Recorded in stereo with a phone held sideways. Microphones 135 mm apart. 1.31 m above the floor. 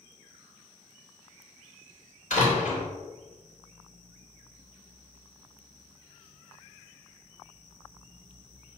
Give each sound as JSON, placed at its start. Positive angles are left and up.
{"t": 2.3, "sound": "a door slam", "side_deg": 75, "distance_m": 3.0}